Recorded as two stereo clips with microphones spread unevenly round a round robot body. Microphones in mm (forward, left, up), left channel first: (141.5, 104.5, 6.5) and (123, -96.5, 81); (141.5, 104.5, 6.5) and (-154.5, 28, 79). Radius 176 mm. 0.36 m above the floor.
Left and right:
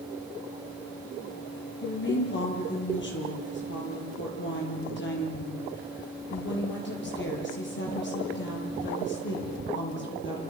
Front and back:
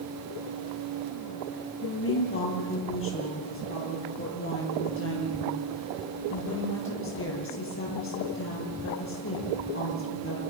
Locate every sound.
1.8 s a woman speaking: 60° left, 9 m